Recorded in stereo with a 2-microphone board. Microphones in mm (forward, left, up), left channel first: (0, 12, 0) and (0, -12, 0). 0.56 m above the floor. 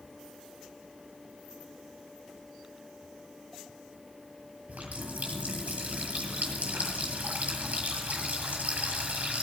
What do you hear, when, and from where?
4.7 s a running tap: 80° right, 8 m